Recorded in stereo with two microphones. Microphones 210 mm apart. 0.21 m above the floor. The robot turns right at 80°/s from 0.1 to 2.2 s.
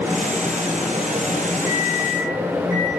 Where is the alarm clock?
150° right, 5.5 m; by 2.9 s 105° right, 5.5 m.